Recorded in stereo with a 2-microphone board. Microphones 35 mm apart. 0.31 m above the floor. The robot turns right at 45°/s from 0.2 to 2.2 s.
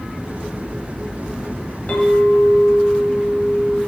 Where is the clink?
40° left (ahead or behind), 1.1 m; by 3.8 s 45° left (ahead or behind), 1.1 m.